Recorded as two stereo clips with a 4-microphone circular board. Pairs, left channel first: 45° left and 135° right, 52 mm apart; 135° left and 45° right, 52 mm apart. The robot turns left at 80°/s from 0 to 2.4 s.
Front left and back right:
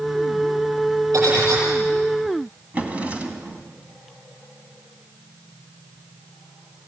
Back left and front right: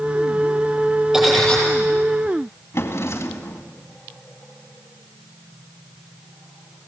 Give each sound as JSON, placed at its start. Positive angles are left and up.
{"t": 1.1, "sound": "cutlery clinking", "azimuth_deg": -120, "distance_m": 9.5}
{"t": 2.7, "sound": "a drawer", "azimuth_deg": 165, "distance_m": 2.0}